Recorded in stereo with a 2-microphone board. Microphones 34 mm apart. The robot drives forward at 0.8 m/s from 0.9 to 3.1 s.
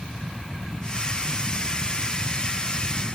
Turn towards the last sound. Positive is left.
No sound to turn to.